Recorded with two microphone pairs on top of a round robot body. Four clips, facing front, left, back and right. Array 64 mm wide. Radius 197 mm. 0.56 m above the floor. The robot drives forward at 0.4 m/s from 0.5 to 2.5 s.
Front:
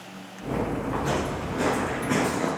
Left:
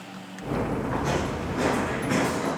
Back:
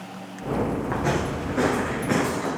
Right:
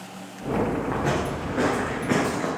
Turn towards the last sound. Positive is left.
turn(degrees=5)